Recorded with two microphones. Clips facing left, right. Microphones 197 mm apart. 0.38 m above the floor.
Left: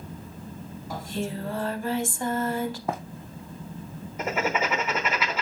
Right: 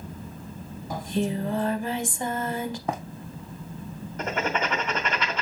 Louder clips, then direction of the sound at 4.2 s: Left 1 dB; 5° left (ahead or behind).